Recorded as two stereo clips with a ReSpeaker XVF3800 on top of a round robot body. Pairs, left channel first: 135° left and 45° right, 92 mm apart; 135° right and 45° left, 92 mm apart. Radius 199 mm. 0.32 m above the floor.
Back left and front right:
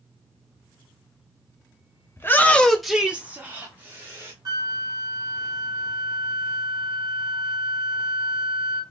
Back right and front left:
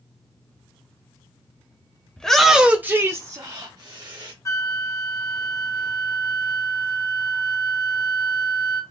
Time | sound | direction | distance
2.2 | a shout | 155° left | 0.9 m
4.5 | a flute | 85° right | 1.0 m